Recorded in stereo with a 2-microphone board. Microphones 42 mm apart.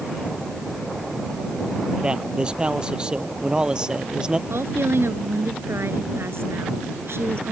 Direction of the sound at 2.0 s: 25° right (ahead or behind).